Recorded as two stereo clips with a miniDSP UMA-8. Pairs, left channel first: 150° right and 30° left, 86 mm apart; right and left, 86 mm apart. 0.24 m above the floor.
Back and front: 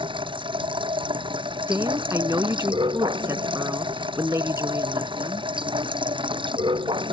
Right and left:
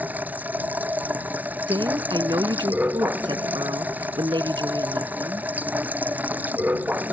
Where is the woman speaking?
80° left.